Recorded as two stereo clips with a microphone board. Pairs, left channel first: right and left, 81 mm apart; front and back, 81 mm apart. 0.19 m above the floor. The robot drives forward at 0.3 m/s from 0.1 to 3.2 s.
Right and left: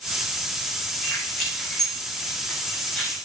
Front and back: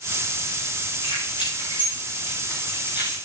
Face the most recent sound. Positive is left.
turn(degrees=-5)